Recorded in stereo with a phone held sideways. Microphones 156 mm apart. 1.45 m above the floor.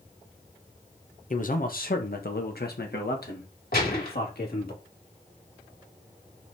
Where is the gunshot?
75° left (ahead or behind), 3.5 m.